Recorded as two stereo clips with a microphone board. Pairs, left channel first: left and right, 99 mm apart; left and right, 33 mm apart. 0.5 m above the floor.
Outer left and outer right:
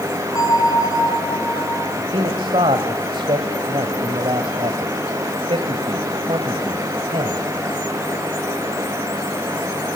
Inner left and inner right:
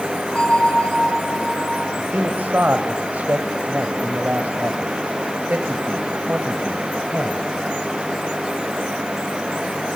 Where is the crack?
No crack in this recording.